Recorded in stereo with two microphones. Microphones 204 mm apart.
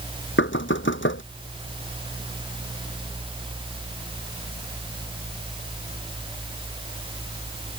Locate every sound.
0.4 s knocking: 70° left (ahead or behind)